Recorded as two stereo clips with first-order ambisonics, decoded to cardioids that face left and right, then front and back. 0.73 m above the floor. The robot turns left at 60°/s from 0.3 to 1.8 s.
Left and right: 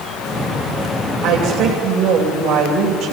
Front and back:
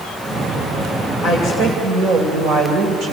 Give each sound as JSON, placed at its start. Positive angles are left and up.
{"t": 1.2, "sound": "a woman speaking", "azimuth_deg": -105, "distance_m": 3.0}